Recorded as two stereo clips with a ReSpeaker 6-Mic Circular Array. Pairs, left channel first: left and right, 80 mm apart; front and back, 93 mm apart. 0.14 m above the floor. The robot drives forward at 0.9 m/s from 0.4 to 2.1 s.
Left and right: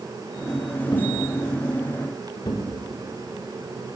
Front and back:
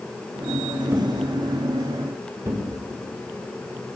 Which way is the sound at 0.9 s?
115° left.